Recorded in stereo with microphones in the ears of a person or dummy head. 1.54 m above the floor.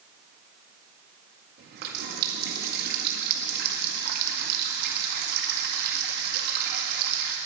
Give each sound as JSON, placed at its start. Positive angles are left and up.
{"t": 1.6, "sound": "a running tap", "side_deg": -50, "distance_m": 1.7}